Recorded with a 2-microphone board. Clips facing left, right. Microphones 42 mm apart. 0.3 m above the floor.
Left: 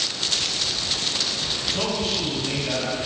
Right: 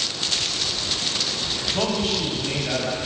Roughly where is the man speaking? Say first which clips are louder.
Right 3 dB; right.